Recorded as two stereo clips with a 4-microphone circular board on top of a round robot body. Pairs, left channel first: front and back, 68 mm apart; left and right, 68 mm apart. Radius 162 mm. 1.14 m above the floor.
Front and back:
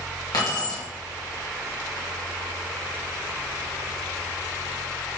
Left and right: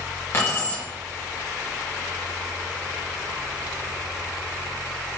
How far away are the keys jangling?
About 1.3 m.